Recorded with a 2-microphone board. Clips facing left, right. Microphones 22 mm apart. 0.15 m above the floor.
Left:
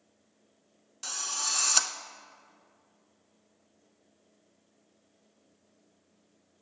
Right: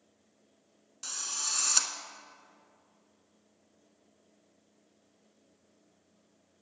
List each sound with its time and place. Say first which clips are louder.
1.0 s a drill: left 3 dB; 15° left (ahead or behind), 0.6 m